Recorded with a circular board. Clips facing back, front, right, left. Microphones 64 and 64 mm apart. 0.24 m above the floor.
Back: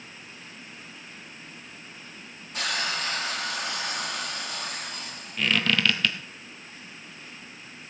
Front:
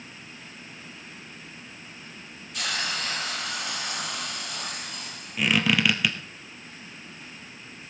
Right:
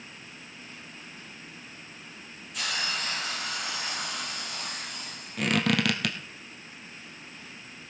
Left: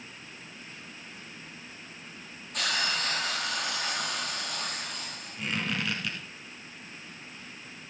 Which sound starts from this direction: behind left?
A hiss, at 2.5 s.